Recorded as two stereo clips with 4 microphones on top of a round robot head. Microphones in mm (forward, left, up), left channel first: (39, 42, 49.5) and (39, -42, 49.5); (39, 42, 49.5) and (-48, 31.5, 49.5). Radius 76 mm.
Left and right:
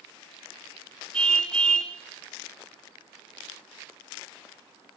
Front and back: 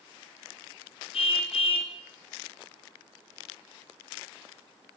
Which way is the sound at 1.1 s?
10° left.